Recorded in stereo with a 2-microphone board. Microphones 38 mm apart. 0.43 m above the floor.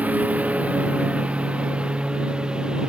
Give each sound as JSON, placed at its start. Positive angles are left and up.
{"t": 0.0, "sound": "a lawn mower", "side_deg": -45}